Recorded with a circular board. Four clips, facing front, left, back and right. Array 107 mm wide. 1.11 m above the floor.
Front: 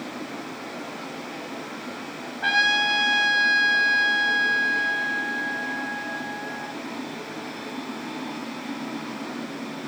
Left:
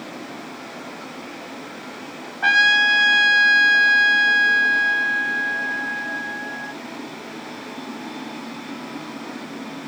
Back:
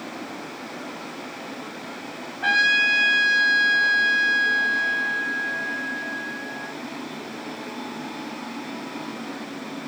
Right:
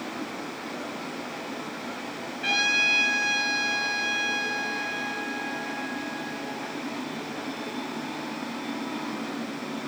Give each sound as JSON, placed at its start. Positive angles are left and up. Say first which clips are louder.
{"t": 2.4, "sound": "a trumpet", "louder": "left 11 dB, back 1 dB", "azimuth_deg": 80, "distance_m": 3.0}